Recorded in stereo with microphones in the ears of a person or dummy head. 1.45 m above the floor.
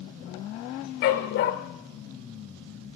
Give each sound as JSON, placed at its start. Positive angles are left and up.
{"t": 1.0, "sound": "a dog barking", "side_deg": 50, "distance_m": 1.5}